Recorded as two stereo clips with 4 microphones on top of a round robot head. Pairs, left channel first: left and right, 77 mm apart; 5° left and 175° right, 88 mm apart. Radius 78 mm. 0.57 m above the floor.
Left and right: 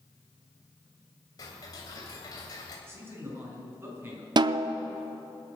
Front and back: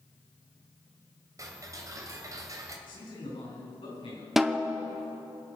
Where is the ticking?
135° left, 2.5 m.